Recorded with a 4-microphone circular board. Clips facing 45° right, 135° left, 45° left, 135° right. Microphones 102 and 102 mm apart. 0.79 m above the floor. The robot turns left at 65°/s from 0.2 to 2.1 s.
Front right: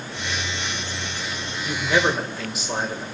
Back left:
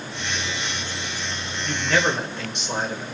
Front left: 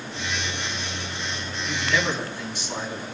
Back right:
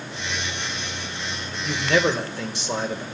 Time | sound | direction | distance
1.6 | a man speaking | 100° right | 2.5 m